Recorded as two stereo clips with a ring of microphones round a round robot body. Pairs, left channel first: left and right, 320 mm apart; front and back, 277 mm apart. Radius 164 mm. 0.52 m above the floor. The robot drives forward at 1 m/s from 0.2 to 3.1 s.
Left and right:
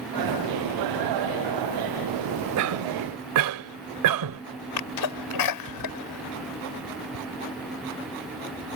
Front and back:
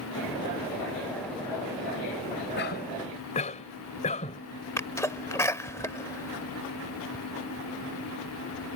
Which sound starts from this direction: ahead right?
A cough, at 2.6 s.